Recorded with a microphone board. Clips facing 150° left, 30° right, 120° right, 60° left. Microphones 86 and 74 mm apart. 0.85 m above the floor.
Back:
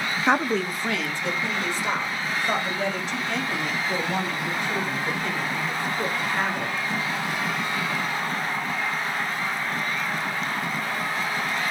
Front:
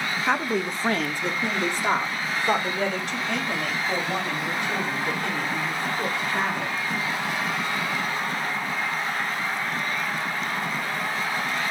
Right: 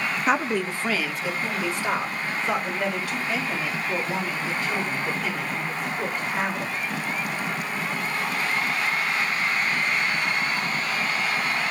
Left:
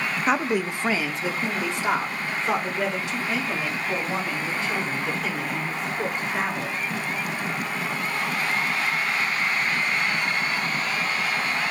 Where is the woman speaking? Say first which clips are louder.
Back 3 dB, even; 155° left, 0.6 m; by 6.7 s 5° right, 8 m.